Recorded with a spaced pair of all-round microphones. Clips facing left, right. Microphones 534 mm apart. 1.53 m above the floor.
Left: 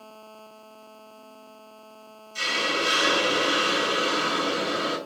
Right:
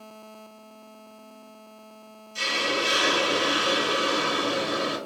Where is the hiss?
5° left (ahead or behind), 0.5 m.